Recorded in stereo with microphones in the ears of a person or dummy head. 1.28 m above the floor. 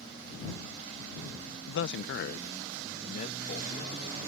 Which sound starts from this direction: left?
A man speaking, at 1.7 s.